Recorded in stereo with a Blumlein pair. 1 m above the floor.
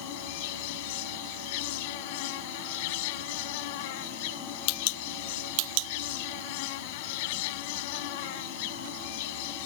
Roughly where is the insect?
Ahead left.